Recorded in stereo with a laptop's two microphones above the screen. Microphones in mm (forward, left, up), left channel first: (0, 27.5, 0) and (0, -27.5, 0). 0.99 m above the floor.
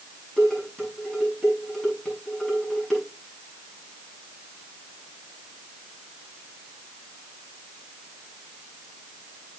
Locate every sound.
0.4 s dishes clattering: 10° left (ahead or behind), 6.5 m